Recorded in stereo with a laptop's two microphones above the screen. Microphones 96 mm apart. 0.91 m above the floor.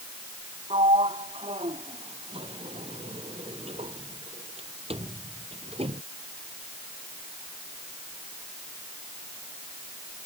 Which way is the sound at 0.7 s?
85° right.